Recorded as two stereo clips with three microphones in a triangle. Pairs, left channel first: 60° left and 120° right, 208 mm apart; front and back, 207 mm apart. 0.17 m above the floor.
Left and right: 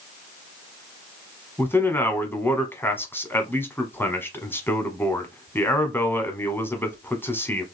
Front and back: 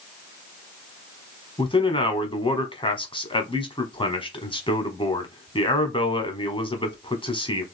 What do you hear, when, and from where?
1.6 s a man speaking: 5° right, 1.0 m